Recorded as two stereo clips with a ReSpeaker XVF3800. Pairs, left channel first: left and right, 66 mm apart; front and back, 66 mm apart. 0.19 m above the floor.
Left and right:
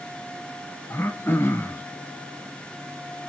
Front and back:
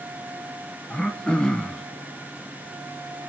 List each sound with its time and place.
0.9 s throat clearing: 70° left, 0.7 m